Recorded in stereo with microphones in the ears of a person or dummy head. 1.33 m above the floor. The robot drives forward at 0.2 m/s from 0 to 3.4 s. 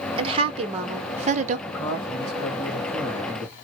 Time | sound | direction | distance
0.2 | a woman speaking | 30° right (ahead or behind) | 0.9 m
1.7 | a woman speaking | 15° left (ahead or behind) | 1.8 m